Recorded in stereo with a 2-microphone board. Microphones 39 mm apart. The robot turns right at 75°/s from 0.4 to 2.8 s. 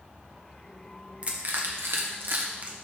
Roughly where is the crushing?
Right.